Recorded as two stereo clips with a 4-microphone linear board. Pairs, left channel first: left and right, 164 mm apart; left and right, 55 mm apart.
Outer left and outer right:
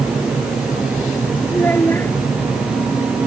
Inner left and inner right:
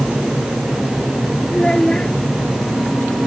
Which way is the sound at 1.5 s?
10° left (ahead or behind).